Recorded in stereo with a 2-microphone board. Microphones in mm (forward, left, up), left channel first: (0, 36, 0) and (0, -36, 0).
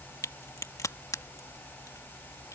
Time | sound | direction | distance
0.2 | a crack | 45° left (ahead or behind) | ?